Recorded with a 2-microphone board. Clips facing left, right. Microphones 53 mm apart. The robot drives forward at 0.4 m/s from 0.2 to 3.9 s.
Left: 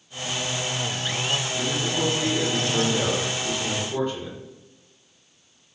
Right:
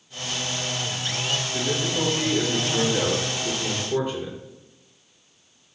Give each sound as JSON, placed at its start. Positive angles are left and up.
{"t": 1.5, "sound": "a man speaking", "side_deg": -30, "distance_m": 2.5}